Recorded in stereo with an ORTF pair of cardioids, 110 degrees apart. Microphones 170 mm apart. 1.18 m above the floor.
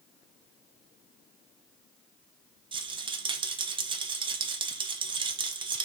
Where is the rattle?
30° right, 0.5 m.